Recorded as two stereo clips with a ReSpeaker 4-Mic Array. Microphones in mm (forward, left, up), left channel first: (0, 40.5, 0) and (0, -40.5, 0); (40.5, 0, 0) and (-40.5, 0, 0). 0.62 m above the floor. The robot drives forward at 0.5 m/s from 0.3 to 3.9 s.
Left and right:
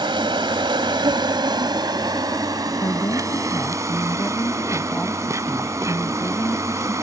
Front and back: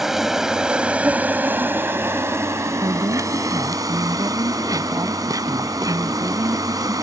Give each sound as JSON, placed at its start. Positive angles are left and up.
{"t": 0.0, "sound": "an insect", "azimuth_deg": -95}
{"t": 2.8, "sound": "a woman speaking", "azimuth_deg": 140}